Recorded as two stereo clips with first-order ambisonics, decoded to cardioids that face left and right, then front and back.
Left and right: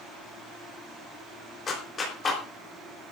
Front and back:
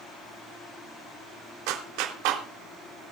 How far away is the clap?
About 3.5 m.